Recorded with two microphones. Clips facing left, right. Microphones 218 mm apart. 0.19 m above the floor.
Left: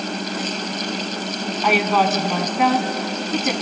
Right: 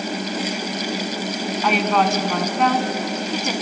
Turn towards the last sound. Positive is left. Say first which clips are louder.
# left 1 dB
turn(degrees=5)  # may be behind; listen again after turning